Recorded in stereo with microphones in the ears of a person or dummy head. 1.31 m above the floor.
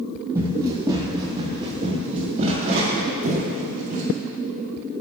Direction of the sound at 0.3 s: 20° right (ahead or behind).